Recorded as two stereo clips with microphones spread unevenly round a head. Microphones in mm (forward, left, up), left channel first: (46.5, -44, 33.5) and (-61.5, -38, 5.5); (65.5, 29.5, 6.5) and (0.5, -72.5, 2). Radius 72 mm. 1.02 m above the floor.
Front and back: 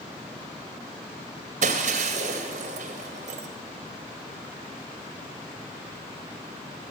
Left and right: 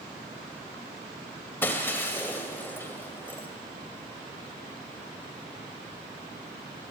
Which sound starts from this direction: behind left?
Breaking glass, at 1.6 s.